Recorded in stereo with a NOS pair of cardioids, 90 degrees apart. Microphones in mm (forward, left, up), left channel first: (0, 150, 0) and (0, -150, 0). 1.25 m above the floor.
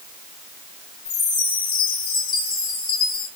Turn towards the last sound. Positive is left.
turn(degrees=50)